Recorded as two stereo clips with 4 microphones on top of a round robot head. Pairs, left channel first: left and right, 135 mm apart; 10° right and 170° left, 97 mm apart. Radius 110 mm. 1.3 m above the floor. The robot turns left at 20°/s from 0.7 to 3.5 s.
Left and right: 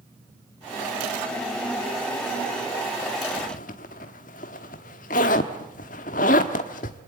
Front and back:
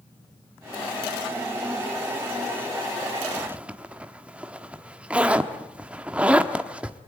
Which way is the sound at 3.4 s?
100° left.